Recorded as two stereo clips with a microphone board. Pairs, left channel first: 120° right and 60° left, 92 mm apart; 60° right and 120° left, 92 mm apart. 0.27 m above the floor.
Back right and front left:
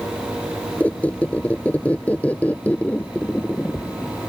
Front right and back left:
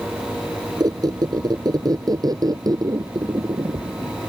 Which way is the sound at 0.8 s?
165° left.